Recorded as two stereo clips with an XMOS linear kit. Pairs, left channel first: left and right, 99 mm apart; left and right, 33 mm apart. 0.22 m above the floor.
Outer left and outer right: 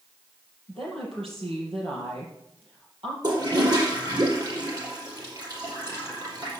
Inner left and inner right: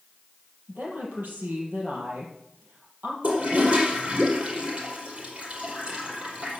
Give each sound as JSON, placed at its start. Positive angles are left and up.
{"t": 0.7, "sound": "a woman speaking", "side_deg": -70, "distance_m": 5.5}
{"t": 3.2, "sound": "a toilet flushing", "side_deg": -45, "distance_m": 5.0}